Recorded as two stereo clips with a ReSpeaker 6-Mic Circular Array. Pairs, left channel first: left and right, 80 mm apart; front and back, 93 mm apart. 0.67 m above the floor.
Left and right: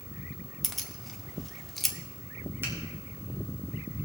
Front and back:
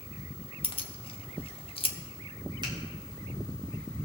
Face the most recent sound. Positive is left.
turn(degrees=-150)